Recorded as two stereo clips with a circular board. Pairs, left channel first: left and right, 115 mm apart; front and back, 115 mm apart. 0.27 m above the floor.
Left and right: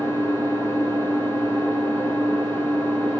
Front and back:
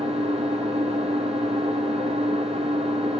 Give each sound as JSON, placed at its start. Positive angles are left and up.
{"t": 0.0, "sound": "an engine running", "azimuth_deg": 160, "distance_m": 2.0}